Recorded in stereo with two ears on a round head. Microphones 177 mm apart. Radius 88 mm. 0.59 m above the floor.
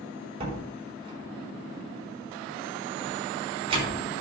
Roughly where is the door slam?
Right.